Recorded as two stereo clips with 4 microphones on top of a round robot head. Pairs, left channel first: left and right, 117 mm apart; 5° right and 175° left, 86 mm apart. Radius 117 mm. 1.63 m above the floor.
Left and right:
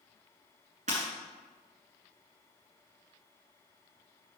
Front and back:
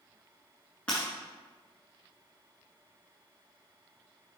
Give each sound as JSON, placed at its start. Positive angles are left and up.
{"t": 0.9, "sound": "breaking glass", "azimuth_deg": -85, "distance_m": 1.9}